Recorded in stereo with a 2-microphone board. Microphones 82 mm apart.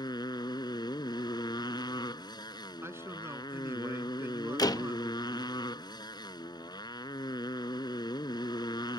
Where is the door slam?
60° left (ahead or behind).